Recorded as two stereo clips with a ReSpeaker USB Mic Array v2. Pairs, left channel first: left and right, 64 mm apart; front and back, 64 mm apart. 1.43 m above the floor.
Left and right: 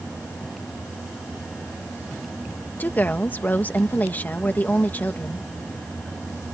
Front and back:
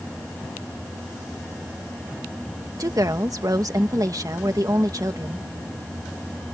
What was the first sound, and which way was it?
A woman speaking, 150° left.